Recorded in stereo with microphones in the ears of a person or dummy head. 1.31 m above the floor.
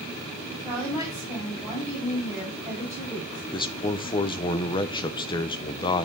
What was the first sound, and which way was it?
A woman speaking, 15° right (ahead or behind).